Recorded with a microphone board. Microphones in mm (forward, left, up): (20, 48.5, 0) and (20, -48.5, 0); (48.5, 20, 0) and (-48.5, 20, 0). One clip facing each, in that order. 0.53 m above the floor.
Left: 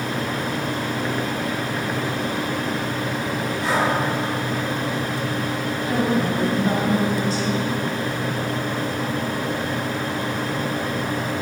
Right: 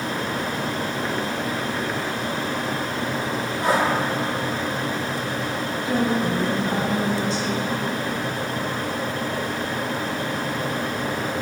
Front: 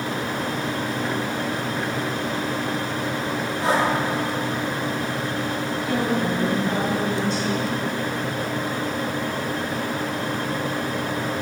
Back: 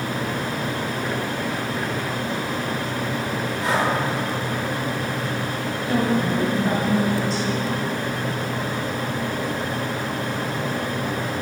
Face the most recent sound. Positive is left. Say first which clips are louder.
# left 1 dB, back 3 dB
turn(degrees=125)